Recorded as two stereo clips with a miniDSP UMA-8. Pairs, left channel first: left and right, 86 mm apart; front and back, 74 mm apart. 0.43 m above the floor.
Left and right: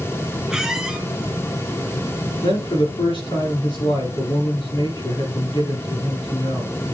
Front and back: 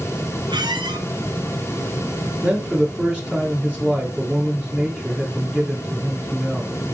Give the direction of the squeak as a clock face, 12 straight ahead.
6 o'clock.